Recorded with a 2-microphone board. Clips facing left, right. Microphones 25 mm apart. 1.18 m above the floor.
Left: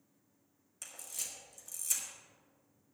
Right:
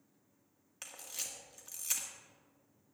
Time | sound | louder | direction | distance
0.8 | a camera shutter | right 1 dB | 35° right (ahead or behind) | 1.8 m